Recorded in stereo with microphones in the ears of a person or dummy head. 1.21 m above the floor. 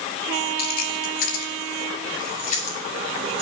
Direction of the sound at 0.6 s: 60° left (ahead or behind).